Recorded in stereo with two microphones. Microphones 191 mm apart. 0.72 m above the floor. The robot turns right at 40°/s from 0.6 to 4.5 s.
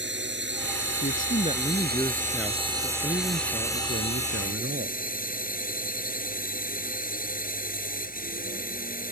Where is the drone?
105° right; by 9.1 s 50° left.